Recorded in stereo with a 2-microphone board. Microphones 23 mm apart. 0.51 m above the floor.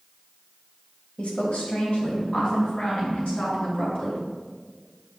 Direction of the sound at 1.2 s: 70° left (ahead or behind).